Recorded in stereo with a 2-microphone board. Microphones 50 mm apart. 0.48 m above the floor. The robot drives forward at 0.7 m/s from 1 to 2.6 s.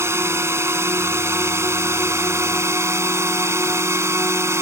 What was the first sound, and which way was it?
A drone, 65° right (ahead or behind).